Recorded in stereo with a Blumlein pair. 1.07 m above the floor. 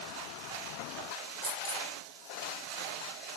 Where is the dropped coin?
25° right, 1.4 m.